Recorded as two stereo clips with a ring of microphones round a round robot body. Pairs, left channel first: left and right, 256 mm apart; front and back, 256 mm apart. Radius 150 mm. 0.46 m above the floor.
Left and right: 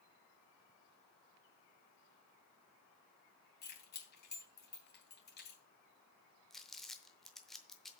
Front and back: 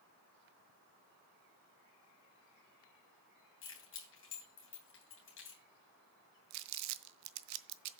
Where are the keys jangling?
40° left, 3 m.